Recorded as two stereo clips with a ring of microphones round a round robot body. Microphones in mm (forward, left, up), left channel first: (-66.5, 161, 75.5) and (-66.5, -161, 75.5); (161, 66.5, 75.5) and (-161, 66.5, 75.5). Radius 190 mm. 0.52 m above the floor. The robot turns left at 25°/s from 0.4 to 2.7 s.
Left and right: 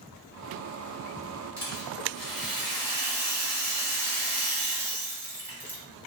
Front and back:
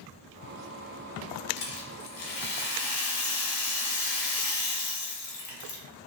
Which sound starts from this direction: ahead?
A rattle, at 1.6 s.